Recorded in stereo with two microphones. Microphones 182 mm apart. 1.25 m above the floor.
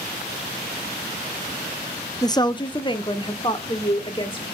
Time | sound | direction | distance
2.2 | a woman speaking | 20° left (ahead or behind) | 0.6 m